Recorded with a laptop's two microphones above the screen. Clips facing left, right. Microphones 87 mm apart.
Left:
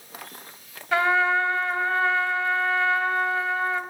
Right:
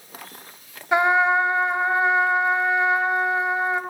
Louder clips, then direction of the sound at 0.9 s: Right 3 dB; 20° right (ahead or behind).